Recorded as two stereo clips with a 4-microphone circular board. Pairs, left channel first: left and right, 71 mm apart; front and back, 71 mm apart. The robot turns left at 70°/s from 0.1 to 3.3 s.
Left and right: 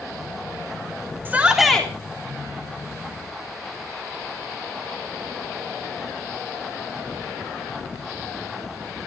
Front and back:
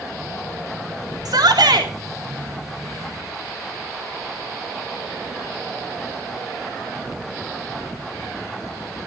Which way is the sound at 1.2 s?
150° right.